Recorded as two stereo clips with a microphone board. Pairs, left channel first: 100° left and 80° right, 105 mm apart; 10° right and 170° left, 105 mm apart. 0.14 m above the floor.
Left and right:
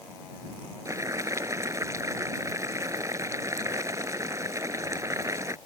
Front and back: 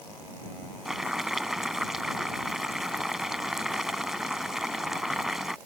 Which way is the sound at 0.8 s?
105° right.